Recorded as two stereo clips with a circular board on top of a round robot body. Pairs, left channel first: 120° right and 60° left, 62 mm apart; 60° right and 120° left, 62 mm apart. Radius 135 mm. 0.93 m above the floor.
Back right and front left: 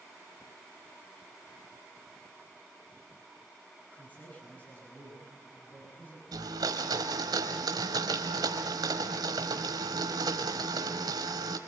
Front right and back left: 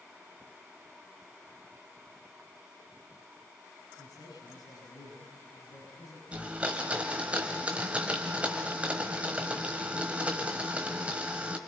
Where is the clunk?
I don't hear a clunk.